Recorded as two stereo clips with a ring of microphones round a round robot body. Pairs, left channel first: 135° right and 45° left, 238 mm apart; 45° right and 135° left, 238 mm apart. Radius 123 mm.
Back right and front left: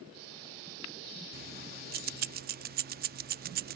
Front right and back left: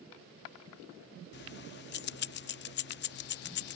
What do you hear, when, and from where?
1.3 s keys jangling: 5° right